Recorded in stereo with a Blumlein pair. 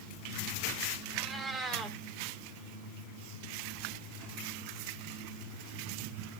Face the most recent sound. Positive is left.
turn(degrees=0)